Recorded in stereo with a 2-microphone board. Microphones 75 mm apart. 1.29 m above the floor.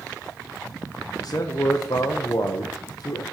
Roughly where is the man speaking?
Left.